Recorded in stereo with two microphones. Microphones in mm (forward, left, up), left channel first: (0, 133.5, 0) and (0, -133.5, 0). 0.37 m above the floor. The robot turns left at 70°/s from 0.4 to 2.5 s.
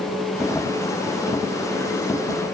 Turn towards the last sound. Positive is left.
No sound to turn to.